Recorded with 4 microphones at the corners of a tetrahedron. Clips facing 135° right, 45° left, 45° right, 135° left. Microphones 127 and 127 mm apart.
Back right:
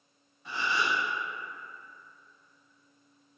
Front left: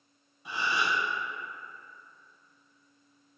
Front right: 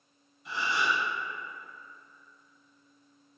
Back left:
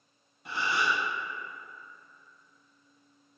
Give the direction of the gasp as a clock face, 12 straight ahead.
8 o'clock.